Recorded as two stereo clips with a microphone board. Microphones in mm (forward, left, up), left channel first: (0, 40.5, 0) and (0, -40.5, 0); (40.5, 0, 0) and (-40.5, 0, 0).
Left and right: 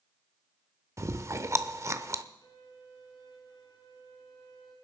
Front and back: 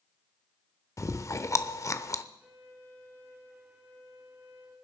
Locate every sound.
1.0 s chewing: 45° right, 0.7 m
2.4 s a violin: 115° left, 3.5 m